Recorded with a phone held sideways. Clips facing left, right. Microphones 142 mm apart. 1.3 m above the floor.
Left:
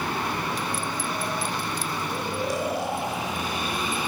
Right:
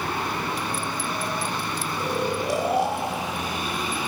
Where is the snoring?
75° right (ahead or behind), 4 m.